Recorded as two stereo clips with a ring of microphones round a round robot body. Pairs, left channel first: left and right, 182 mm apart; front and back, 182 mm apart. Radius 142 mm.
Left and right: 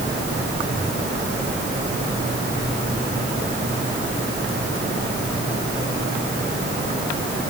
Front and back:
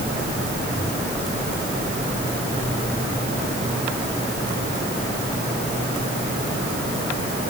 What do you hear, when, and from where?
Only background noise.